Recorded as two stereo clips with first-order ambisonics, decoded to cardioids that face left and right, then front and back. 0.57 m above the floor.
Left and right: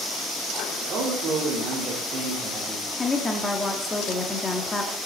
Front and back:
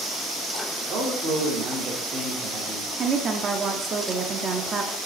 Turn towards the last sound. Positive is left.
turn(degrees=150)